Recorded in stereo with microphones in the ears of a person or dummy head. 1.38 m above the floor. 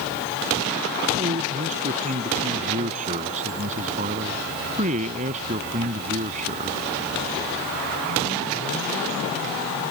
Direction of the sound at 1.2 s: 35° right (ahead or behind).